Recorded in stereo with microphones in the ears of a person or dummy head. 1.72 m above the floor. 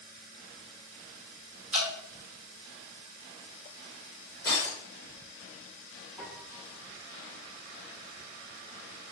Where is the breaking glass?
20° left (ahead or behind), 0.8 m.